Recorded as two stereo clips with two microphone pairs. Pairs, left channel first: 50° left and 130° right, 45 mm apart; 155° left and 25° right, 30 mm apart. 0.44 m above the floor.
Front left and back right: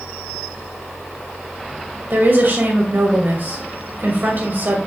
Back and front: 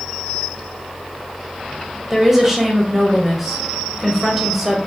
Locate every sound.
2.1 s a woman speaking: 100° right, 2.0 m